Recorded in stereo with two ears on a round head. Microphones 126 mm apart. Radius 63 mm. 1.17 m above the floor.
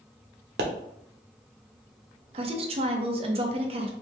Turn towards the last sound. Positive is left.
turn(degrees=-45)  # may be behind; listen again after turning